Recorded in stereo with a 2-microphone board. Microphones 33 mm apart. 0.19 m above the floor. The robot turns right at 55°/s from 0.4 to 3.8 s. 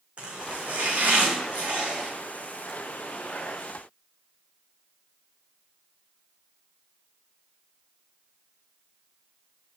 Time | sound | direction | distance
0.2 | chopping | 145° right | 2.5 m